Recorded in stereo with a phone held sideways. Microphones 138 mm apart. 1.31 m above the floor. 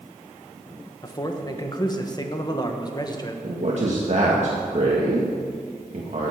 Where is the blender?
No blender in this recording.